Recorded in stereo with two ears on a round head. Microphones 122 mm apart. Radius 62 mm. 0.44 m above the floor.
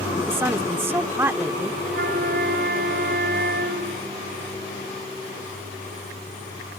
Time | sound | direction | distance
0.3 | a woman speaking | 15° right (ahead or behind) | ?
1.9 | a flute | 80° right | ?